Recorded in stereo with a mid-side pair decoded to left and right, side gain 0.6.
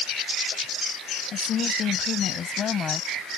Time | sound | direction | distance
1.3 | a woman speaking | 50° left | ?